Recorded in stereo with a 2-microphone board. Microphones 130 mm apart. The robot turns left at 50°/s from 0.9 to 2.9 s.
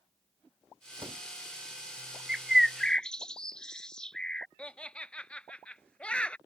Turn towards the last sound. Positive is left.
turn(degrees=10)  # may be behind; listen again after turning